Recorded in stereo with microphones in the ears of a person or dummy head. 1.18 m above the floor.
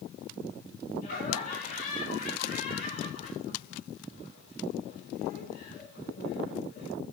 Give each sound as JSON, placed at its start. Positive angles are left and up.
{"t": 1.0, "sound": "laughter", "side_deg": 50, "distance_m": 4.5}